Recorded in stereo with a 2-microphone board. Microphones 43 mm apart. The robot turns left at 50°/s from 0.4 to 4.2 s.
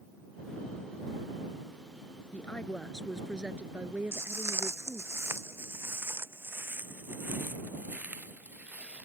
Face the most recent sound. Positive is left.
turn(degrees=-35)  # may be behind; listen again after turning